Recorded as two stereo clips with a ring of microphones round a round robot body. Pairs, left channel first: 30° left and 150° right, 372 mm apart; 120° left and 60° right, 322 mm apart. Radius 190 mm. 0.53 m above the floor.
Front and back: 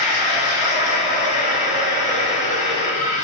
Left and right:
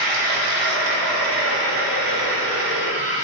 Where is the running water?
45° right, 0.7 m.